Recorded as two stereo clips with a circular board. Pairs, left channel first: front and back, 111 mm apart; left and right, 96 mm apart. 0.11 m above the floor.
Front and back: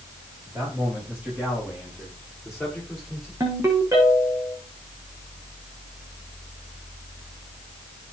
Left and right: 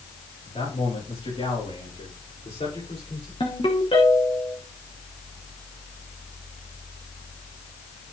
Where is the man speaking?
100° left, 10 m; by 3.3 s 90° left, 8.5 m.